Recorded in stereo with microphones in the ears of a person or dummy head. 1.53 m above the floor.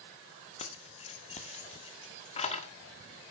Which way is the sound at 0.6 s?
35° left (ahead or behind).